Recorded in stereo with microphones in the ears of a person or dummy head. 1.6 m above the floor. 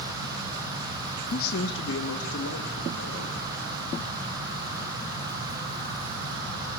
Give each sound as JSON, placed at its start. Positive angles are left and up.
{"t": 1.3, "sound": "a man speaking", "side_deg": 45, "distance_m": 1.0}